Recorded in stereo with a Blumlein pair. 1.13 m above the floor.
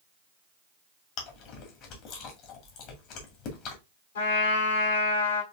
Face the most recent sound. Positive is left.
turn(degrees=60)